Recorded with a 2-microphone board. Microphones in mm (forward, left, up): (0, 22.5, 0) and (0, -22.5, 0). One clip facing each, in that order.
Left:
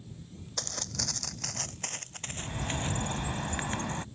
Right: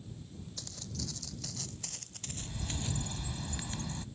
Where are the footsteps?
70° left (ahead or behind); by 3.1 s 40° left (ahead or behind).